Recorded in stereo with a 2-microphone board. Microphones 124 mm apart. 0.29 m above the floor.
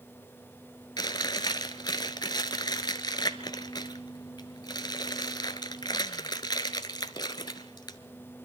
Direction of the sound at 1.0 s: 35° left (ahead or behind).